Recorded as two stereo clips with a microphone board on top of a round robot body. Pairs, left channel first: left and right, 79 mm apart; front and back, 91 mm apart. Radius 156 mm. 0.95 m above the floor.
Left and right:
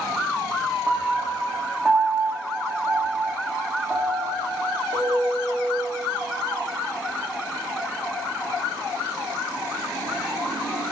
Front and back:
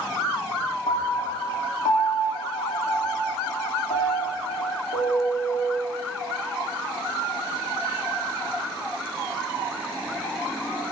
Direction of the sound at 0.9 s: 15° right.